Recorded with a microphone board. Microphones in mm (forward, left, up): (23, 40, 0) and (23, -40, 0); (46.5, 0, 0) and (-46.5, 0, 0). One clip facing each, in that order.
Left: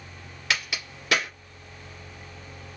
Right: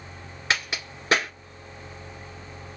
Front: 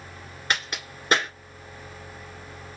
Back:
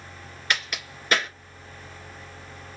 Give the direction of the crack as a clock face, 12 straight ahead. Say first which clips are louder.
Right 2 dB, even; 1 o'clock.